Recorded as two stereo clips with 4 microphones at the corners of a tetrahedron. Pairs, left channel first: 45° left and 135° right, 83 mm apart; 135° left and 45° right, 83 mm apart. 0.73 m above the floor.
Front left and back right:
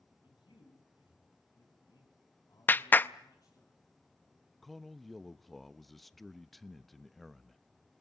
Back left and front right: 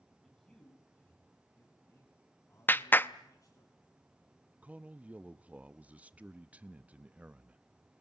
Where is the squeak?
No squeak in this recording.